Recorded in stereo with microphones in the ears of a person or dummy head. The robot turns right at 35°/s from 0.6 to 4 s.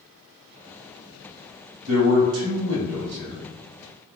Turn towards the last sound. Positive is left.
turn(degrees=-30)